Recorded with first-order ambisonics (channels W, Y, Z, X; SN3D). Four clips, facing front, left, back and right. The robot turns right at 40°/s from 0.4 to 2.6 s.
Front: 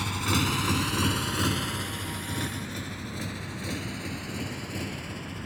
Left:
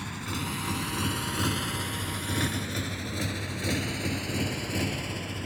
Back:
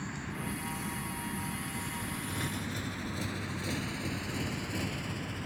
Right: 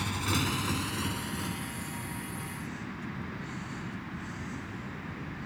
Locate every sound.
0.0 s a motorcycle: 20° right; by 5.5 s 85° left